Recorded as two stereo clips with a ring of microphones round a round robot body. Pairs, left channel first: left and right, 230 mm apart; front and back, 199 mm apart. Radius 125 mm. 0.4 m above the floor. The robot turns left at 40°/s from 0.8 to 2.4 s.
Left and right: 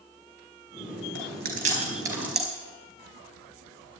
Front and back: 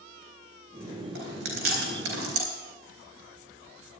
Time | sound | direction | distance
1.1 | chewing | 130° right | 4 m